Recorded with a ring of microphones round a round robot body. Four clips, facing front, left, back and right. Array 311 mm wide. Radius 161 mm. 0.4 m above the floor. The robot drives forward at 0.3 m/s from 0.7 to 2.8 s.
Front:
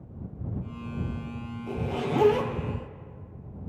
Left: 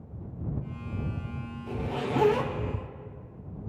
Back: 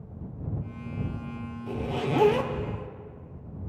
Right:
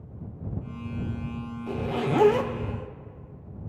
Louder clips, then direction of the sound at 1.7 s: Right 4 dB, even; 95° right.